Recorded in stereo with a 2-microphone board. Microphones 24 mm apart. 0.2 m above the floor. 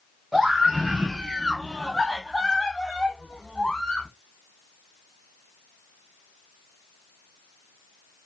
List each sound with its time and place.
0.3 s a scream: 20° right (ahead or behind), 1.6 m; by 4.1 s 30° left (ahead or behind), 1.8 m